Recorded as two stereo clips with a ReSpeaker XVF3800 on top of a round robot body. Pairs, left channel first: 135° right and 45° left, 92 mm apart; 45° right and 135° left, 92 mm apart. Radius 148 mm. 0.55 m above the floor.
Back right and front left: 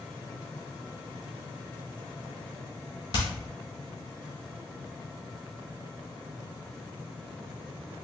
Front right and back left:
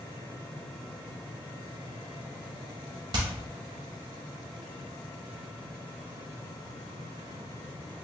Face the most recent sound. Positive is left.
turn(degrees=180)